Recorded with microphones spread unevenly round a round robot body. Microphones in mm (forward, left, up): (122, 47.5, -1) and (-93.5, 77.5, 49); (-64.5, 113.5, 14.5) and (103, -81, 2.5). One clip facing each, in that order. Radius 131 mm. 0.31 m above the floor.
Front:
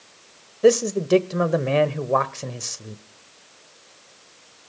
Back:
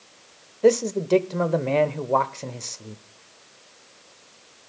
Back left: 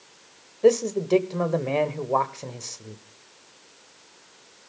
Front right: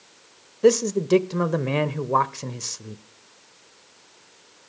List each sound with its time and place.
0.6 s a man speaking: 35° right, 1.0 m